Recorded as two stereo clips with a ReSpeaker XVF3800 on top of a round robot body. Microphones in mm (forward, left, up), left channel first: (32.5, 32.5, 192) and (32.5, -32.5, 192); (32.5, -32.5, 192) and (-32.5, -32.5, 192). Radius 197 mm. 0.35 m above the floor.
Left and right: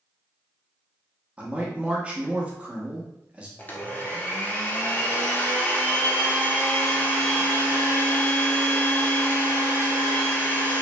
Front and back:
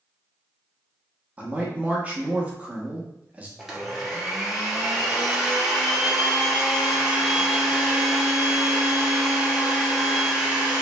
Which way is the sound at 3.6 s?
105° left.